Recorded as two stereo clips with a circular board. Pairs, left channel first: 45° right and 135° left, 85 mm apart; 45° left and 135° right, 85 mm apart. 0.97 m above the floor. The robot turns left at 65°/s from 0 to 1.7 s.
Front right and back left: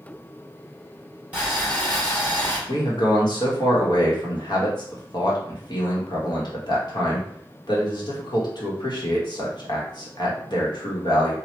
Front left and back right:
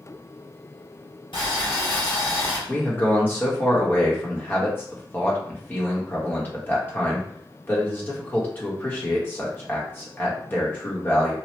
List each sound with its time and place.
1.3 s boiling: 65° left, 1.7 m; by 2.6 s 40° left, 1.7 m
2.7 s a man speaking: 20° right, 1.1 m